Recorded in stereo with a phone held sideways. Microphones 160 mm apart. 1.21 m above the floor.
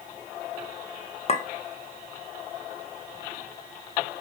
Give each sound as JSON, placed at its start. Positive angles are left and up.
{"t": 1.3, "sound": "a clink", "side_deg": 40, "distance_m": 1.2}